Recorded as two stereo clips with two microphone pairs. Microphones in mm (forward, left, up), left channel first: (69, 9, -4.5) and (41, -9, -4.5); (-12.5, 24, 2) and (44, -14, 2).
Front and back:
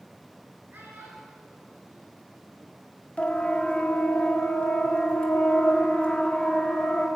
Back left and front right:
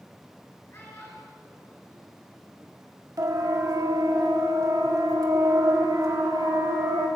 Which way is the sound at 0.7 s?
160° right.